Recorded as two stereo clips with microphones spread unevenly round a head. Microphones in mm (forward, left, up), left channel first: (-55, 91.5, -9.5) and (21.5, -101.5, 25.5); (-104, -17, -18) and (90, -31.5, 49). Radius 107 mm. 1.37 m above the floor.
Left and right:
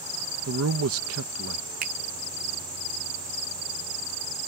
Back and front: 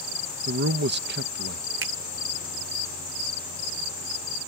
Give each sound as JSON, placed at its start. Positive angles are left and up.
{"t": 0.5, "sound": "a man speaking", "azimuth_deg": -40}
{"t": 1.8, "sound": "a finger snap", "azimuth_deg": -15}